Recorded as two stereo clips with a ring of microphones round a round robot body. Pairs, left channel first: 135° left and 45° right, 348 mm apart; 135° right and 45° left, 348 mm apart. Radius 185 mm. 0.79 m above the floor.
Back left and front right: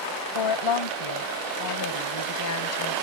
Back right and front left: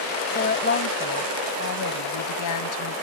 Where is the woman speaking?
155° left; by 2.9 s 175° right.